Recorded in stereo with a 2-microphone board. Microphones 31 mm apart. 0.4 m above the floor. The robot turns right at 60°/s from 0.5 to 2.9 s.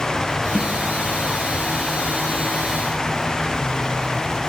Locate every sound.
0.6 s a snare drum: 85° left, 2.5 m; by 0.7 s 80° left, 2.5 m